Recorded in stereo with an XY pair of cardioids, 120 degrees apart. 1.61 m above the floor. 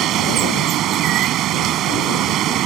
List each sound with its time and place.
0.0 s running water: 70° right